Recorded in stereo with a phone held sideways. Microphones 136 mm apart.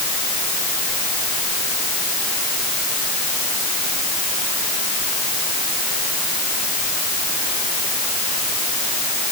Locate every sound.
Only background noise.